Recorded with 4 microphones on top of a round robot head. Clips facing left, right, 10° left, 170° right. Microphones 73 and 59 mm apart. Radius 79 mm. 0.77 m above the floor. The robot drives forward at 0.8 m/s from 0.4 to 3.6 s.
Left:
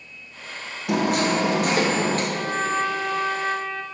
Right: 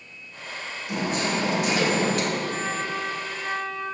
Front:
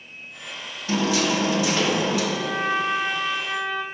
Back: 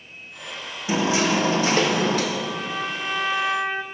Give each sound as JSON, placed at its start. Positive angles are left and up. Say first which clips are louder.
{"t": 0.9, "sound": "hammering", "louder": "left 6 dB, back 1 dB", "azimuth_deg": 115, "distance_m": 1.0}
{"t": 2.3, "sound": "a trumpet", "louder": "left 4 dB, front 4 dB", "azimuth_deg": 40, "distance_m": 0.8}